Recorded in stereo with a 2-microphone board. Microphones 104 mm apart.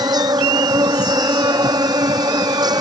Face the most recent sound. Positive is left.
turn(degrees=-40)  # may be behind; listen again after turning